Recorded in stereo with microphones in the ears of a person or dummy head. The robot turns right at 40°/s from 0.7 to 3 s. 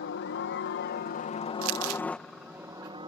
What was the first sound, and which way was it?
A helicopter, 120° left.